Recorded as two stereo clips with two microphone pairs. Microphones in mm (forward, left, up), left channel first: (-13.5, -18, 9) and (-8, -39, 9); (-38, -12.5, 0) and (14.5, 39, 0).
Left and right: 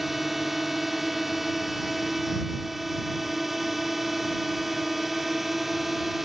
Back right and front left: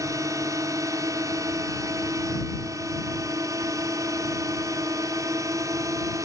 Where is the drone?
10° left.